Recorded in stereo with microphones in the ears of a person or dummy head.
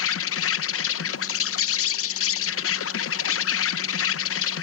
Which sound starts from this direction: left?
An insect, at 0.0 s.